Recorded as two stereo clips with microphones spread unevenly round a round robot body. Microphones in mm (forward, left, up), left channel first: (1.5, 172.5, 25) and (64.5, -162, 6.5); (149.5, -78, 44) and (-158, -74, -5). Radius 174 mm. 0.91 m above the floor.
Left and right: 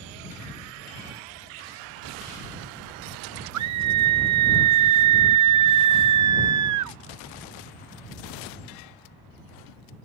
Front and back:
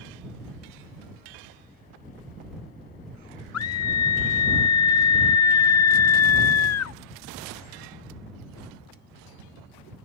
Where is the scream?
45° right.